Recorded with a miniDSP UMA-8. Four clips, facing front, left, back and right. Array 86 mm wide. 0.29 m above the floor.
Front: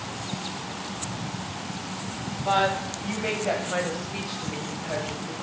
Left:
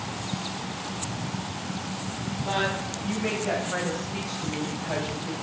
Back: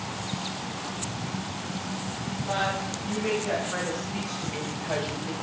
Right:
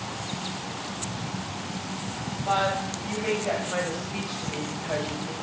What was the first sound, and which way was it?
A woman speaking, 10° right.